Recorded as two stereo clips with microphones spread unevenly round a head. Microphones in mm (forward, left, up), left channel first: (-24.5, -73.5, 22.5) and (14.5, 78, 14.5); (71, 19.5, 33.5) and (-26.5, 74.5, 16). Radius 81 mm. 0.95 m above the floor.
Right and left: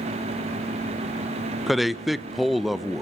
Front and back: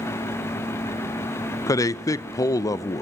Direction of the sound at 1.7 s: 5° right.